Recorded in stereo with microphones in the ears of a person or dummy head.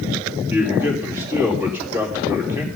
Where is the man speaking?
10° right (ahead or behind), 2.5 m.